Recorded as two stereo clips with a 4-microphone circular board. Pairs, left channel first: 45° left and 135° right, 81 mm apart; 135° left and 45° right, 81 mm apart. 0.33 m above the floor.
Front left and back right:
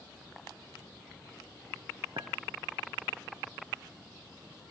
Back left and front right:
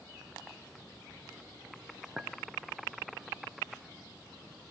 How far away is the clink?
About 1.8 m.